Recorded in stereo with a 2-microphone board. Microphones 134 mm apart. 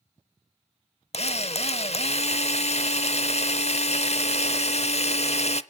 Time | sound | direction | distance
1.1 | a drill | 55° left (ahead or behind) | 0.6 m